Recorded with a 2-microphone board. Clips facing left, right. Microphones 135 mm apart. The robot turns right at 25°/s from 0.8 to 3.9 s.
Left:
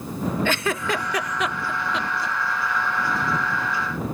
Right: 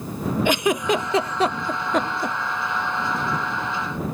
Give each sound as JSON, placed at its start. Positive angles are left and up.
{"t": 0.5, "sound": "a giggle", "side_deg": -15}